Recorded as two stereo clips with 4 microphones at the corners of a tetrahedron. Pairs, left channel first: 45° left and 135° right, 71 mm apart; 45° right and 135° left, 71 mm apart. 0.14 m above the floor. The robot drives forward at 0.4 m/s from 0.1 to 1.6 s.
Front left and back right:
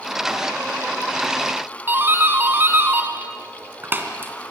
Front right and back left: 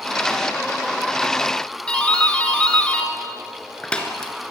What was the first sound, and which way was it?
A doorbell, 110° right.